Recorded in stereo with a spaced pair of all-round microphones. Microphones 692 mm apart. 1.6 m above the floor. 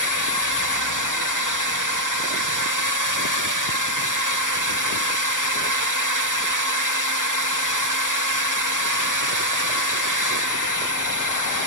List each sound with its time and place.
0.0 s a drone: 30° right (ahead or behind)